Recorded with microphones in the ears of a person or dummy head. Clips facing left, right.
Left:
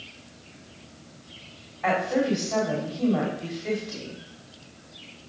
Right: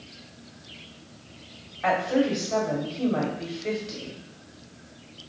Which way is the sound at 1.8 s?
35° right (ahead or behind).